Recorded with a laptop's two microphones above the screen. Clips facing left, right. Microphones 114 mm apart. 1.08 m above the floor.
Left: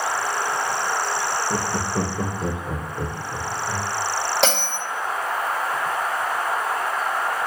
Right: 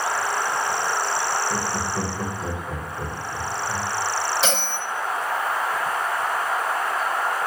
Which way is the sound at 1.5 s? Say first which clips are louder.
Left 2 dB; 30° left (ahead or behind).